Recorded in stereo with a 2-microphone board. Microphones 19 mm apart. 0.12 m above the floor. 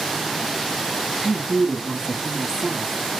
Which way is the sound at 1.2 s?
15° right (ahead or behind).